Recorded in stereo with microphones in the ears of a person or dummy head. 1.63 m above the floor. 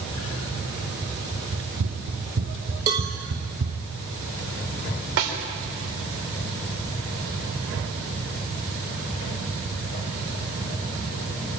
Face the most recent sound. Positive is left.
turn(degrees=-65)  # may be behind; listen again after turning